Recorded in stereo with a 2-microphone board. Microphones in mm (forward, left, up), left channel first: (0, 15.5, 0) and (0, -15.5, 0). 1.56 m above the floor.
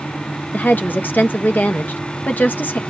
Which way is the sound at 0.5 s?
80° left.